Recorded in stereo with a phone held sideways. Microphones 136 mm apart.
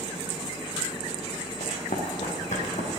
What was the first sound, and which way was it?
Running footsteps, 65° left (ahead or behind).